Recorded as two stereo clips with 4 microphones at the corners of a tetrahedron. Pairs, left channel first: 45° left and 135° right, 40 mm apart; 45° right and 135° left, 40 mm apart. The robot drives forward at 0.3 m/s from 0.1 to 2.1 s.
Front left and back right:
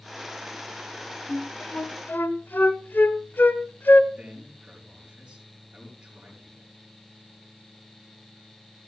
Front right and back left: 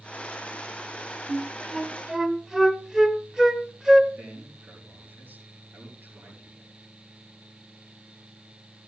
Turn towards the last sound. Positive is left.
turn(degrees=155)